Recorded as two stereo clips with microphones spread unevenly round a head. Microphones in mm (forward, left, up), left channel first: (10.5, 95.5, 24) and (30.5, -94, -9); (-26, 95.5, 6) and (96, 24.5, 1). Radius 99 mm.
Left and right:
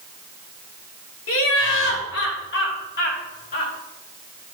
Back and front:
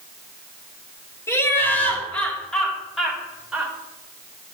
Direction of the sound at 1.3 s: 80° left.